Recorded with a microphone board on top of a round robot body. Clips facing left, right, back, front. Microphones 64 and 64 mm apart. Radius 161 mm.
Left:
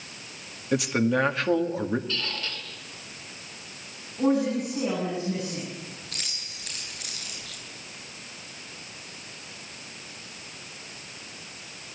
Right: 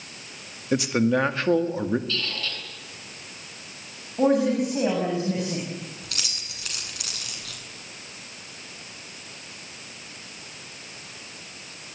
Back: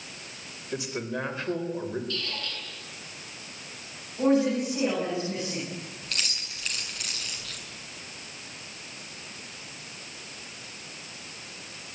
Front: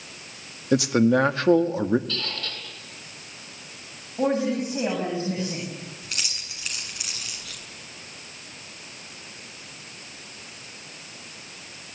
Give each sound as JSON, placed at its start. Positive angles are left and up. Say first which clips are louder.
{"t": 0.7, "sound": "a man speaking", "louder": "right 2 dB, front 13 dB", "azimuth_deg": 0, "distance_m": 2.0}
{"t": 2.1, "sound": "a squeak", "louder": "right 2 dB, front 2 dB", "azimuth_deg": 20, "distance_m": 8.0}
{"t": 4.2, "sound": "a woman speaking", "louder": "right 3 dB, back 1 dB", "azimuth_deg": -60, "distance_m": 8.0}
{"t": 6.0, "sound": "keys jangling", "louder": "right 3 dB, back 2 dB", "azimuth_deg": -85, "distance_m": 7.0}